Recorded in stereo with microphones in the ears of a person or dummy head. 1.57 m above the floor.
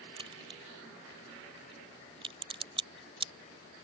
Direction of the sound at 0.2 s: 35° right (ahead or behind).